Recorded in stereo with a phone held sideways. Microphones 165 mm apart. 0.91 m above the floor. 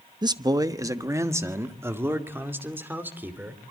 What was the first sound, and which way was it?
A man speaking, 25° right (ahead or behind).